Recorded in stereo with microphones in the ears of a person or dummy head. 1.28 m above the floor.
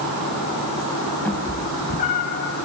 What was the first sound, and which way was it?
A cat meowing, 5° left (ahead or behind).